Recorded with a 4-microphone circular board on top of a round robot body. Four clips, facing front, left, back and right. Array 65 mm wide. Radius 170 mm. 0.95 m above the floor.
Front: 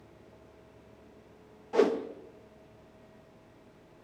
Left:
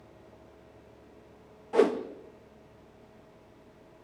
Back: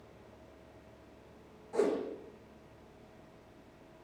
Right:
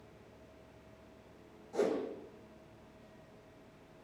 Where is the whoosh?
60° left, 1.5 m.